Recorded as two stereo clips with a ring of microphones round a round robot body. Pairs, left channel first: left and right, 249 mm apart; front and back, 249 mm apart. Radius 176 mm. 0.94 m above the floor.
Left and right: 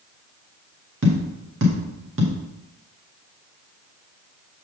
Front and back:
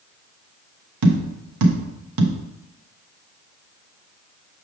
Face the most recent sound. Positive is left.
turn(degrees=-150)